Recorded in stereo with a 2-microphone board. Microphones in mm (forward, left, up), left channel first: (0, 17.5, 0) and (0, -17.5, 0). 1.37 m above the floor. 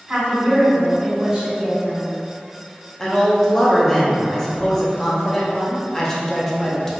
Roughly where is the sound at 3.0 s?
Centre.